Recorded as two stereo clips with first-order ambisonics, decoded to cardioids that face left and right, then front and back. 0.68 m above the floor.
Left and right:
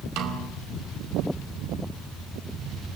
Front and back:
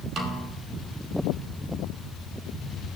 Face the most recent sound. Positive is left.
turn(degrees=-120)